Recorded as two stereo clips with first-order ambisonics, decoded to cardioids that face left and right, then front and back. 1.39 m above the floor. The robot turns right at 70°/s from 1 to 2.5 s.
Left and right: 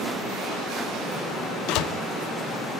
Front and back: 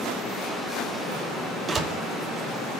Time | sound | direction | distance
1.7 | a door slam | 110° left | 2 m